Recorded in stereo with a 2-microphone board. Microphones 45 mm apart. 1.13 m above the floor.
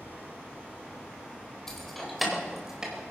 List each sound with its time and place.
1.7 s keys jangling: 10° left (ahead or behind), 3.5 m; by 3.0 s 20° right (ahead or behind), 3.5 m